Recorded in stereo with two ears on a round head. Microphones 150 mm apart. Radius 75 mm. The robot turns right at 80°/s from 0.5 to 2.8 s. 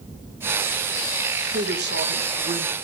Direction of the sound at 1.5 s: 125° right.